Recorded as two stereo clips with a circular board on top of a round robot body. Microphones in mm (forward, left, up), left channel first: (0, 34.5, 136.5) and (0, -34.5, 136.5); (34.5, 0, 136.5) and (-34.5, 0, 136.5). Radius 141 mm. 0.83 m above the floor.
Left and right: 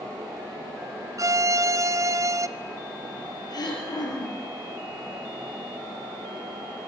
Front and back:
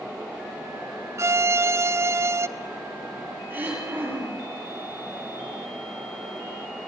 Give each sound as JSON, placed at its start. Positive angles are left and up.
{"t": 1.2, "sound": "a violin", "azimuth_deg": -130, "distance_m": 0.8}
{"t": 3.5, "sound": "throat clearing", "azimuth_deg": 120, "distance_m": 6.0}